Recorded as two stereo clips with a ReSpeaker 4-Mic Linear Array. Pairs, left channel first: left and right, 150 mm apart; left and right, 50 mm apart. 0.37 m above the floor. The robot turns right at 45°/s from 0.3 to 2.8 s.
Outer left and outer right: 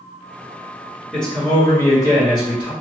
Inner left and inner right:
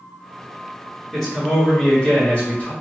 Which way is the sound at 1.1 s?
5° left.